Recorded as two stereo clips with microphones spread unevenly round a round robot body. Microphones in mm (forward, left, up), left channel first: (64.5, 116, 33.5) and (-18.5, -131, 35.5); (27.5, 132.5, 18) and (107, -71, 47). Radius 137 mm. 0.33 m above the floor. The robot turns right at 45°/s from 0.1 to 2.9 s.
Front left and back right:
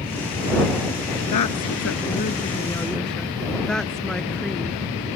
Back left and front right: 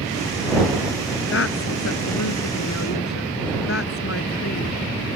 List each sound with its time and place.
1.3 s a woman speaking: 90° left; by 4.8 s 160° left